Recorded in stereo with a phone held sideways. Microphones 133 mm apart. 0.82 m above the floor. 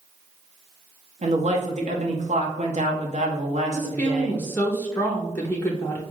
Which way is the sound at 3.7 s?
15° left (ahead or behind).